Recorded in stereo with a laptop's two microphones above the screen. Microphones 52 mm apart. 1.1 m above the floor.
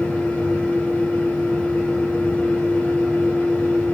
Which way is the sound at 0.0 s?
20° left (ahead or behind).